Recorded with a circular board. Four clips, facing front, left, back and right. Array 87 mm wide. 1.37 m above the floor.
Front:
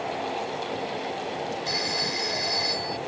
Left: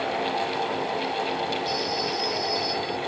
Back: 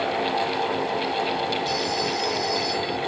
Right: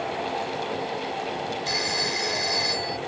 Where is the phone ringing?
75° right.